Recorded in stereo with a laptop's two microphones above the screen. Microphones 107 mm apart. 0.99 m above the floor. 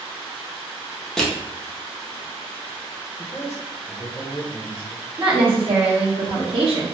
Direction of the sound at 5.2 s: 60° right (ahead or behind).